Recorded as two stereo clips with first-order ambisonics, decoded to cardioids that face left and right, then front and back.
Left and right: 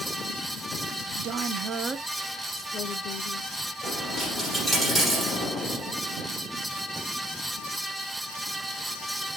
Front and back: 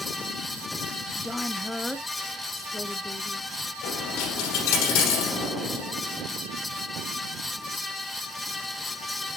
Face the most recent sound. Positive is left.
turn(degrees=-5)